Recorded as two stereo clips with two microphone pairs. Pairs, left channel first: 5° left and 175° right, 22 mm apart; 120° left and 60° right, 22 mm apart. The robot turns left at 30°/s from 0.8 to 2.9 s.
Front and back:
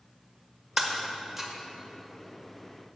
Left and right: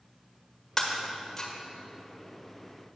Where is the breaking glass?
155° left, 1.4 m; by 1.5 s 135° left, 1.4 m.